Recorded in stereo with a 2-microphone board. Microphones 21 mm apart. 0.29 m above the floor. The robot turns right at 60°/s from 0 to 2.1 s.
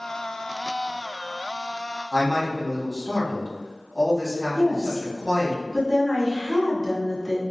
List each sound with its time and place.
2.1 s a man speaking: 20° right (ahead or behind), 1.6 m
4.5 s a woman speaking: 25° right (ahead or behind), 1.5 m